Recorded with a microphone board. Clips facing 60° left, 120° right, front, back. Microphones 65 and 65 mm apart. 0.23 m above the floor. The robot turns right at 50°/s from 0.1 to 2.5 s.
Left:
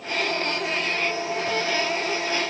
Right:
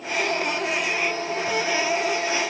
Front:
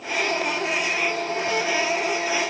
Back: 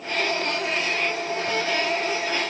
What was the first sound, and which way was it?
Only background noise.